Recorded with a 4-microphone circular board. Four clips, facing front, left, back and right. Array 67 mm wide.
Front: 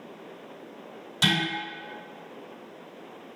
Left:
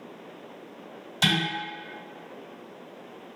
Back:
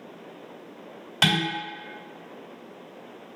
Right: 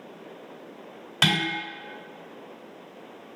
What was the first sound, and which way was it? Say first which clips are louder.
Dishes clattering: right 1 dB, back 2 dB; 135° right.